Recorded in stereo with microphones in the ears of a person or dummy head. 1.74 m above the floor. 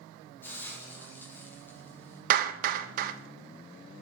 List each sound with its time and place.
0.4 s a hiss: 10° left (ahead or behind), 2 m
2.3 s a clap: 55° right (ahead or behind), 0.7 m